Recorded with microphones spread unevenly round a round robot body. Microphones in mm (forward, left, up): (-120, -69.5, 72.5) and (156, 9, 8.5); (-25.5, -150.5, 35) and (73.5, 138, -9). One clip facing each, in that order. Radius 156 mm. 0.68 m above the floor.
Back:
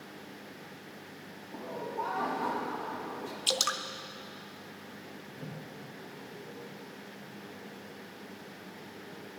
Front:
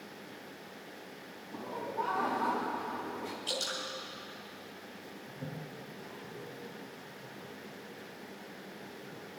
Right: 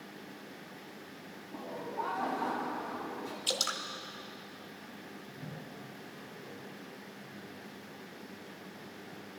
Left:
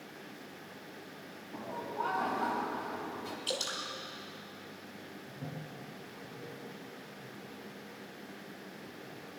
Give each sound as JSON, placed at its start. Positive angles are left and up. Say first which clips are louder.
{"t": 1.5, "sound": "laughter", "louder": "back 1 dB, even", "azimuth_deg": 85, "distance_m": 4.5}
{"t": 3.5, "sound": "dripping", "louder": "back 3 dB, left 2 dB", "azimuth_deg": 180, "distance_m": 0.9}
{"t": 5.3, "sound": "a toilet flushing", "louder": "front 2 dB, left 4 dB", "azimuth_deg": 75, "distance_m": 5.0}